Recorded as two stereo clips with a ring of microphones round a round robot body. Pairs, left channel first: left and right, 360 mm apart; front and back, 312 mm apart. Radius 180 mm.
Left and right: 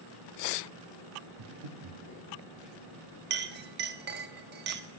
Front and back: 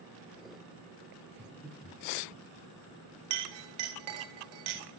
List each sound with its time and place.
1.4 s breathing: 95° right, 0.9 m
3.3 s a clink: 155° right, 0.7 m